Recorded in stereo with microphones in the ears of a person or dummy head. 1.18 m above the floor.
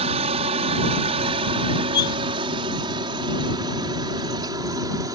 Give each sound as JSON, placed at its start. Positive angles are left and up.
{"t": 0.0, "sound": "a helicopter", "side_deg": -30}
{"t": 1.9, "sound": "cutlery clinking", "side_deg": 20}